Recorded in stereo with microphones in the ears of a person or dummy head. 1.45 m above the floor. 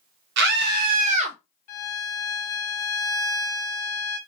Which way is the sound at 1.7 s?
50° left (ahead or behind).